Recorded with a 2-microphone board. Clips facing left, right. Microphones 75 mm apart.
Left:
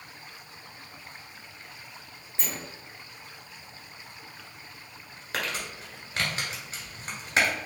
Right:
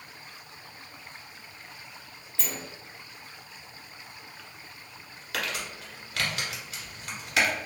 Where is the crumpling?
30° left (ahead or behind), 1.4 m.